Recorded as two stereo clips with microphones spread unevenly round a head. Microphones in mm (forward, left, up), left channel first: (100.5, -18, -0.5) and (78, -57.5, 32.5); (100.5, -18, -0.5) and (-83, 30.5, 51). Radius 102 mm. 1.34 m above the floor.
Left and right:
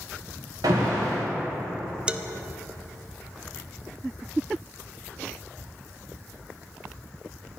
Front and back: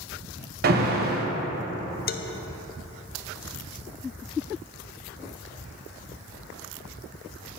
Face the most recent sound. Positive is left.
turn(degrees=-30)